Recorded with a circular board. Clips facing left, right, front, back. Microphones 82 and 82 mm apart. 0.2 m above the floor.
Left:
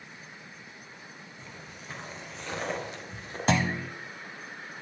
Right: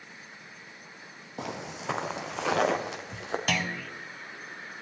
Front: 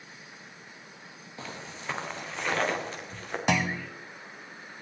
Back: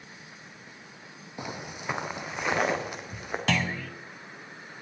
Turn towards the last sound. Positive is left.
turn(degrees=55)